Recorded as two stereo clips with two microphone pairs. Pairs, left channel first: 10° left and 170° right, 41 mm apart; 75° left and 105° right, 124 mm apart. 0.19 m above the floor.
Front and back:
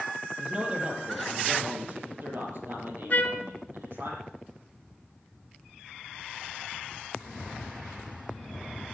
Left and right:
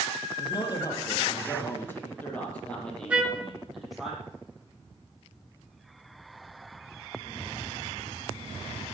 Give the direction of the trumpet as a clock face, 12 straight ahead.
1 o'clock.